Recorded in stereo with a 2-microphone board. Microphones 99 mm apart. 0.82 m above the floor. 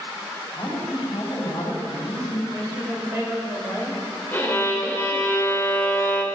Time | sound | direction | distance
0.6 | a woman speaking | 45° left (ahead or behind) | 3.5 m
2.5 | a woman speaking | 25° right (ahead or behind) | 3.5 m
4.3 | a violin | 20° left (ahead or behind) | 1.6 m